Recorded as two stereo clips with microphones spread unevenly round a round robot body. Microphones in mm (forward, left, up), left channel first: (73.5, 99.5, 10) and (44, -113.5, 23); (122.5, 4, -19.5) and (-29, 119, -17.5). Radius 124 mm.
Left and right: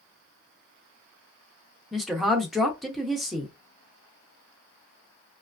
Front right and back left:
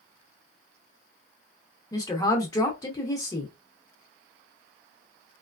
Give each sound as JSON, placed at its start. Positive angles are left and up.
{"t": 1.9, "sound": "a woman speaking", "azimuth_deg": 0, "distance_m": 0.8}